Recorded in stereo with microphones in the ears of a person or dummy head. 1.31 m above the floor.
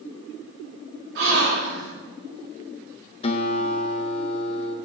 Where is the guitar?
30° left (ahead or behind), 0.8 m.